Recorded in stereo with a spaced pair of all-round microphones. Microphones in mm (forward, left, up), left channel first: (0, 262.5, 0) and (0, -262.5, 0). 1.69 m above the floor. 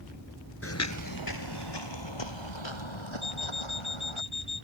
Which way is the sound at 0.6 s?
25° left (ahead or behind).